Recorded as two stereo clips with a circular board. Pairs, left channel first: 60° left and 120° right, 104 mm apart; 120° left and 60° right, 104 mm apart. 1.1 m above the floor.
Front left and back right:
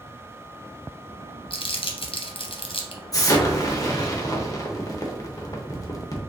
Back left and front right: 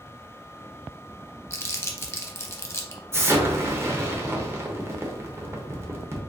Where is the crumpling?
60° left, 0.7 m.